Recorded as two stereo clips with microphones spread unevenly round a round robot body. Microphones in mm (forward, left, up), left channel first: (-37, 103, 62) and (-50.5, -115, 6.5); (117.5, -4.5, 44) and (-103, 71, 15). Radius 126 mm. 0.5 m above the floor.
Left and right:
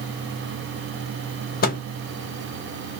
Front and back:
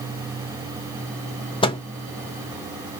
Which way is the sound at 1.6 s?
45° left.